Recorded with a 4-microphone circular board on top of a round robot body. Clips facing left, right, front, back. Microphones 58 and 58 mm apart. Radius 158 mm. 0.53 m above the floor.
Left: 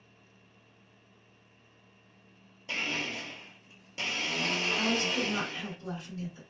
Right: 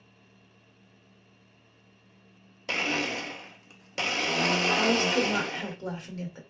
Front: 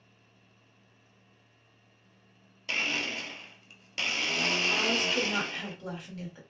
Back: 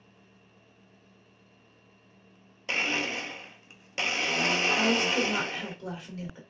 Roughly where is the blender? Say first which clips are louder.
Right 5 dB, back 2 dB; right.